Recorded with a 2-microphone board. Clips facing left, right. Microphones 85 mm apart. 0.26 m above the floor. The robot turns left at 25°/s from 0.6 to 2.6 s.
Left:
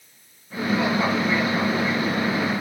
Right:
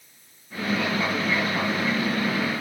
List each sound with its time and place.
Only background noise.